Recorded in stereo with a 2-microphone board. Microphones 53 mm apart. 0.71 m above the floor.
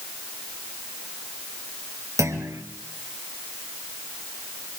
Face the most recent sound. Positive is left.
turn(degrees=-75)  # may be behind; listen again after turning